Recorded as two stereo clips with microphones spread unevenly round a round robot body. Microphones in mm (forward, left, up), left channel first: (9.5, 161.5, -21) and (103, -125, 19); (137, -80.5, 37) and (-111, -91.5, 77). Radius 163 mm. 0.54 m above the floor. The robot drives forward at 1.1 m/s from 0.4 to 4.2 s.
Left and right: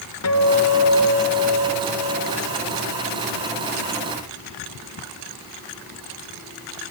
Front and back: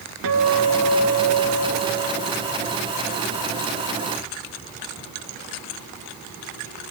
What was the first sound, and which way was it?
A guitar, 145° left.